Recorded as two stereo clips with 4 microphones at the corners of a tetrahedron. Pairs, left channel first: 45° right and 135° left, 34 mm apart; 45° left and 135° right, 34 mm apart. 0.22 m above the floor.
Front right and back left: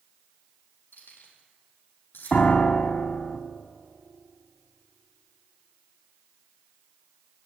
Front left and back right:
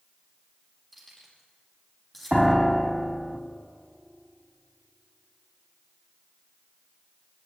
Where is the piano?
45° right, 1.1 m.